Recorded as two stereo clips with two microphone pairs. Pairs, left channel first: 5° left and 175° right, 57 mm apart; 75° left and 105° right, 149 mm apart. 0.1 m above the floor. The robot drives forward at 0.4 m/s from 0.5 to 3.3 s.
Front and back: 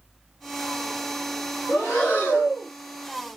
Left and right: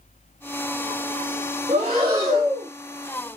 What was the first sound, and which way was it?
Breathing, 50° right.